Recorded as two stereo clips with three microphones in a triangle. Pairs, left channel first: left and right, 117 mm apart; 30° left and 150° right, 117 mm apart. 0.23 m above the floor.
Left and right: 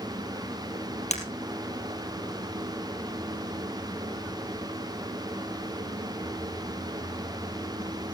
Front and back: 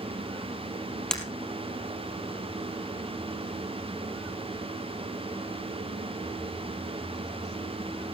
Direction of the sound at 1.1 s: 115° left.